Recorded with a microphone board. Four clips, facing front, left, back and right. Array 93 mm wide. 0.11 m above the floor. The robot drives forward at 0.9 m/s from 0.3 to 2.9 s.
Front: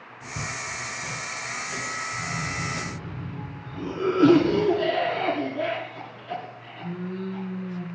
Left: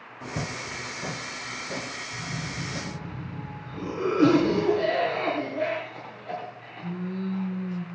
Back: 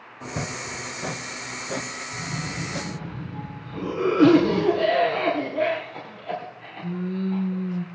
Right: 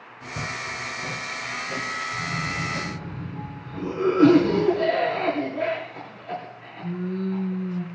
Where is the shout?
I don't hear a shout.